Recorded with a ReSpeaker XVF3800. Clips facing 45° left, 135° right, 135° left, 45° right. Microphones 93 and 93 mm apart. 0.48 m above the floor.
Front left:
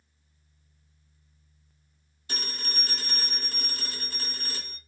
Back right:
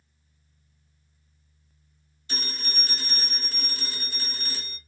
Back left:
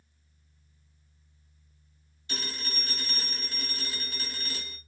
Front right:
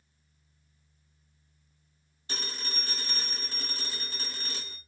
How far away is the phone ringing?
About 1.8 m.